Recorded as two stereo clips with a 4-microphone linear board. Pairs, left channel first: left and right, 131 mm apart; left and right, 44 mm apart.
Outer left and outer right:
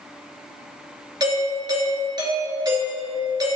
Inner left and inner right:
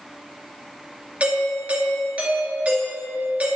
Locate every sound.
1.2 s a doorbell: 35° right (ahead or behind), 3 m